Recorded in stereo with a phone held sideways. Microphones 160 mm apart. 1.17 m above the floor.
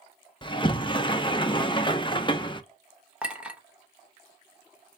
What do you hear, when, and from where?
0.4 s a sliding door: 30° left (ahead or behind), 0.6 m
3.2 s a clink: 5° right (ahead or behind), 0.9 m